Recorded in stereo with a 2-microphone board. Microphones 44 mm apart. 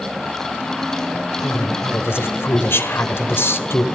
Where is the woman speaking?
65° left (ahead or behind), 1.6 m.